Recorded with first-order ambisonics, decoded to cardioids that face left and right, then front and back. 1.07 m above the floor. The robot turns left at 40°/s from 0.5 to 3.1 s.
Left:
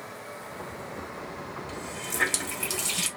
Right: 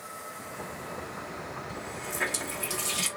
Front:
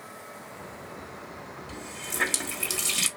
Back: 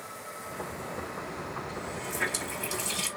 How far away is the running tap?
About 1.4 m.